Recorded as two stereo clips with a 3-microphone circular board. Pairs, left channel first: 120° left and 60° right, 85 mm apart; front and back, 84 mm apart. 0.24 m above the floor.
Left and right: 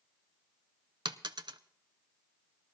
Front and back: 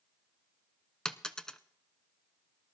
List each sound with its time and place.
1.1 s a dropped coin: 85° right, 0.6 m